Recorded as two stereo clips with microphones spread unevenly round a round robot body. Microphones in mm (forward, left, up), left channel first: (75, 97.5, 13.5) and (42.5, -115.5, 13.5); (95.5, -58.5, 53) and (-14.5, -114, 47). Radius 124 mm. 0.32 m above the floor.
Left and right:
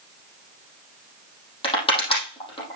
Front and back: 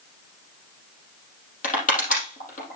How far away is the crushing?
About 5 m.